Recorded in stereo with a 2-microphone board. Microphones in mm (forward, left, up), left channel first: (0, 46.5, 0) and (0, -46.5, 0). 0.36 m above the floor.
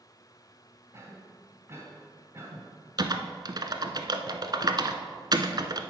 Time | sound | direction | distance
0.9 | a cough | 30° right (ahead or behind) | 2 m
3.0 | typing on a keyboard | 45° right (ahead or behind) | 0.7 m